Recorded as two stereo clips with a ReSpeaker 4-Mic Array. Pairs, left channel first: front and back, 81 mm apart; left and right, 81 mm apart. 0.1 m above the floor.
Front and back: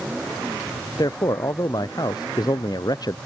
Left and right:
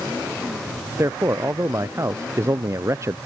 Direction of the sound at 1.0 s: 35° right.